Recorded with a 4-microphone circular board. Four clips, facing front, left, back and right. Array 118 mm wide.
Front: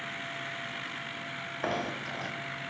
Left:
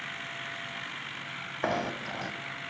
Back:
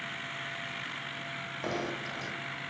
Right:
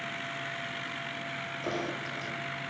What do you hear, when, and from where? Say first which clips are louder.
1.6 s knocking: left 4 dB, front 2 dB; 70° left, 2 m